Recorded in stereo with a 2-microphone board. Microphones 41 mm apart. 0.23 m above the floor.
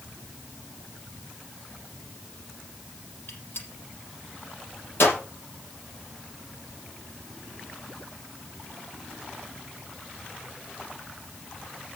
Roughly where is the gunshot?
Left.